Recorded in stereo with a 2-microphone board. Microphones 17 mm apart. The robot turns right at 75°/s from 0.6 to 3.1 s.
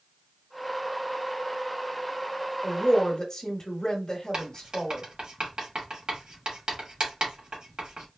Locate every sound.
2.6 s a woman speaking: 75° left, 1.3 m; by 5.0 s 110° left, 1.3 m
4.3 s writing: 55° right (ahead or behind), 1.7 m